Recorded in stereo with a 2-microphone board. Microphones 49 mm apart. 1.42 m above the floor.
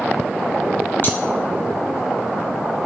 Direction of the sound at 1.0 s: 45° left (ahead or behind).